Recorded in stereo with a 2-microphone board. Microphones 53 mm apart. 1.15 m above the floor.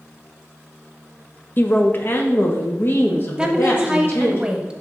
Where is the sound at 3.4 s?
15° right (ahead or behind), 0.9 m.